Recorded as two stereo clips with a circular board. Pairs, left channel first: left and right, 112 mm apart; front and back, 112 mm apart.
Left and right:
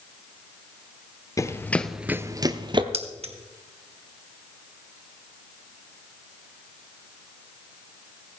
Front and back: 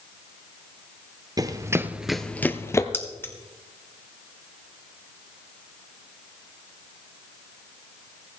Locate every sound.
1.4 s running footsteps: 140° left, 0.9 m; by 2.8 s 60° right, 1.1 m
2.9 s keys jangling: 70° right, 1.5 m